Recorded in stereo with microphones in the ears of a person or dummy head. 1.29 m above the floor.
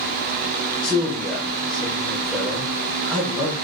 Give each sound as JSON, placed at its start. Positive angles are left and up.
{"t": 0.8, "sound": "a man speaking", "side_deg": 5, "distance_m": 0.9}